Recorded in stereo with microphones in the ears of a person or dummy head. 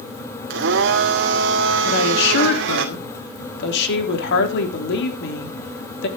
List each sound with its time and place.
0.5 s a blender: 60° right (ahead or behind), 1.8 m
1.9 s a woman speaking: 70° left (ahead or behind), 4 m